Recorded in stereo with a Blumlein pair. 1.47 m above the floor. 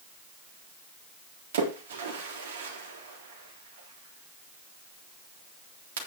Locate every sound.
1.5 s a splash: 60° right, 3.5 m